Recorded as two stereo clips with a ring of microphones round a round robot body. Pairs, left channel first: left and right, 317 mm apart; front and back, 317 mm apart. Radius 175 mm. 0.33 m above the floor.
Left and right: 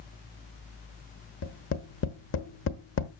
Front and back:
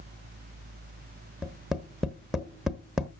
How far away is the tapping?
About 1.2 m.